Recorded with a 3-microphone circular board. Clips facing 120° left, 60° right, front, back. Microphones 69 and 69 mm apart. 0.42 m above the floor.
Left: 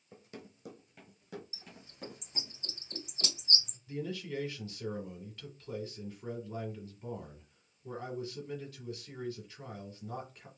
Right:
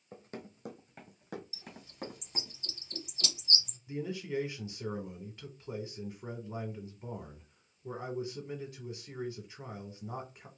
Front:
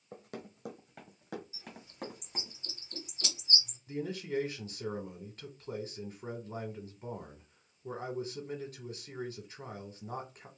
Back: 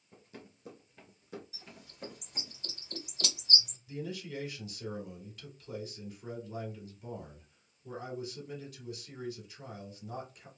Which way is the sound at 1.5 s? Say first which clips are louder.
Right 6 dB, front 4 dB; 175° left.